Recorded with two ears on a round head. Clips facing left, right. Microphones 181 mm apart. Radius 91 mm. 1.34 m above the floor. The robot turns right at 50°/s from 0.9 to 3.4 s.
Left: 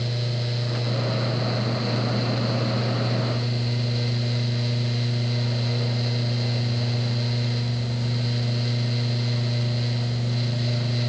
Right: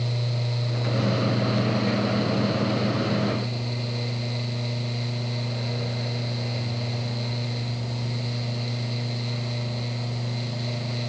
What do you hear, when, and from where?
Only background noise.